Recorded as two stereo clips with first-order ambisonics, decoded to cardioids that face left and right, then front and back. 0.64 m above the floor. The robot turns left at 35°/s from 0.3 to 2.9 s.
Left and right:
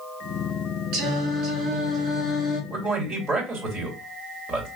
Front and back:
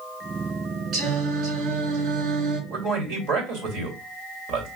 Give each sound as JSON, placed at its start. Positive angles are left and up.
{"t": 0.9, "sound": "singing", "azimuth_deg": -110, "distance_m": 3.5}
{"t": 2.7, "sound": "a man speaking", "azimuth_deg": -150, "distance_m": 2.5}